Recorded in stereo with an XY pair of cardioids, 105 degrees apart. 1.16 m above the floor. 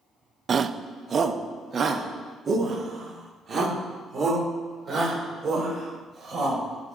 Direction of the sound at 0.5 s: 40° right.